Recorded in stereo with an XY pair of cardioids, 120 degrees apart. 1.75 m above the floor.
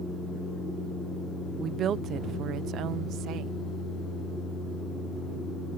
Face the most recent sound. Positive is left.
turn(degrees=-75)